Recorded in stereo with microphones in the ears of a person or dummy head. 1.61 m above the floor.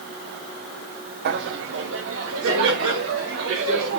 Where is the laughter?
60° right (ahead or behind), 0.8 m; by 4.0 s 85° right, 4.5 m.